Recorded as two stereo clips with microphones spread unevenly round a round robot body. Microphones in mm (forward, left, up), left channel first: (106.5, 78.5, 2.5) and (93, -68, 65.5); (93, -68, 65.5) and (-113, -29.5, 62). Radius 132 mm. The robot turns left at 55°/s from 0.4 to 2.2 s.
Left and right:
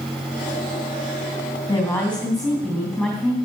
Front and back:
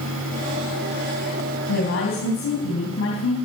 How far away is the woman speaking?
About 3.5 m.